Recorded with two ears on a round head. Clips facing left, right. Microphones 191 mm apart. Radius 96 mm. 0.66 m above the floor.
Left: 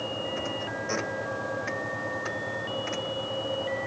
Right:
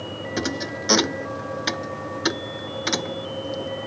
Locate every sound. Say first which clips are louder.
0.4 s a thud: right 6 dB; 85° right